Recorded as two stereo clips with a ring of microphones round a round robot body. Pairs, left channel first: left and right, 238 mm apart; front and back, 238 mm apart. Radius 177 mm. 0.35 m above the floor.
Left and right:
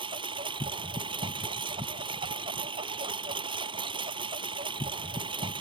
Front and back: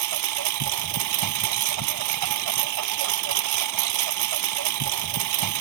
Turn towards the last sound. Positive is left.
turn(degrees=-165)